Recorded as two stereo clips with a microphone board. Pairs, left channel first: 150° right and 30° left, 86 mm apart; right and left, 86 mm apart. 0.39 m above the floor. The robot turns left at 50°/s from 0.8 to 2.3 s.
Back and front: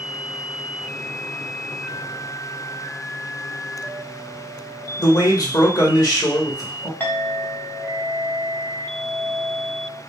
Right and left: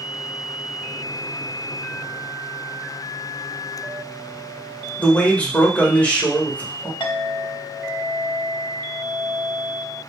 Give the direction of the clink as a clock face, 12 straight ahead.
3 o'clock.